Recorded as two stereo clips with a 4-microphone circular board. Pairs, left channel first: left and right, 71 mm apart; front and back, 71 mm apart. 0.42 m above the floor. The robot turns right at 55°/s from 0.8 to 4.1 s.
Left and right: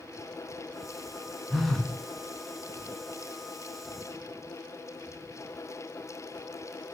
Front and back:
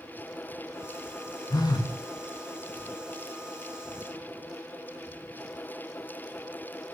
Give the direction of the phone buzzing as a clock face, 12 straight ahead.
12 o'clock.